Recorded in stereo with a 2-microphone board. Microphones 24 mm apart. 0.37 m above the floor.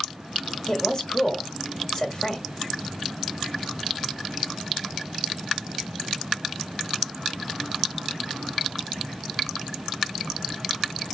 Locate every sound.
0.7 s a woman speaking: 30° left (ahead or behind), 1.3 m